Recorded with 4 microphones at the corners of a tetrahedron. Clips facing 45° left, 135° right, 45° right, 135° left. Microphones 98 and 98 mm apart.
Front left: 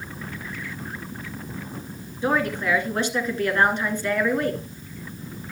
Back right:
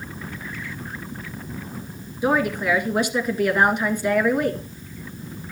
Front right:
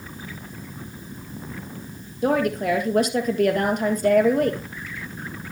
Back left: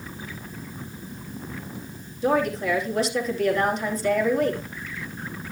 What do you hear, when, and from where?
2.2 s a woman speaking: 60° right, 1.9 m